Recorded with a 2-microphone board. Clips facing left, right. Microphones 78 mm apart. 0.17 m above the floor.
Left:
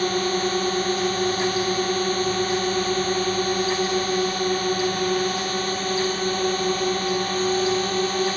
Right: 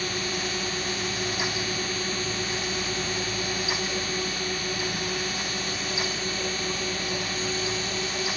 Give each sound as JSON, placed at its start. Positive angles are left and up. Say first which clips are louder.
{"t": 0.0, "sound": "a drone", "louder": "left 8 dB", "side_deg": 45}